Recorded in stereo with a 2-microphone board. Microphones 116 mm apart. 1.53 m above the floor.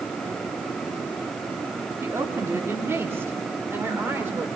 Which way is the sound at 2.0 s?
25° right (ahead or behind).